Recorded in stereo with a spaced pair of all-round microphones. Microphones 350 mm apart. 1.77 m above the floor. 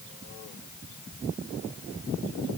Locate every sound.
Only background noise.